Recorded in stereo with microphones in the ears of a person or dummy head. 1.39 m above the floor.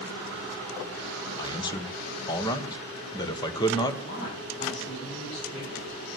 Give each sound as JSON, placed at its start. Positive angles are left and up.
{"t": 1.4, "sound": "a man speaking", "side_deg": 25, "distance_m": 1.1}
{"t": 4.0, "sound": "a woman speaking", "side_deg": 45, "distance_m": 6.5}